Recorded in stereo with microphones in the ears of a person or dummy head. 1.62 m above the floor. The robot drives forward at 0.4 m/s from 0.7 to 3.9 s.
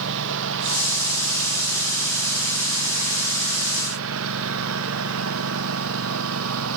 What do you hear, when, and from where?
0.0 s a lawn mower: 75° right (ahead or behind); by 6.8 s 85° right